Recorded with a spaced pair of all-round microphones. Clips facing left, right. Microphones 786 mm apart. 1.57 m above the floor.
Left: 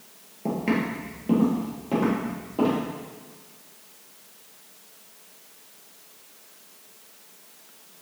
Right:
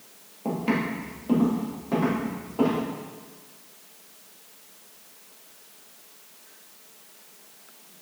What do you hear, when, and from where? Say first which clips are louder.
0.5 s footsteps: left 1 dB; 50° left (ahead or behind), 2.5 m; by 2.8 s 60° left (ahead or behind), 4.5 m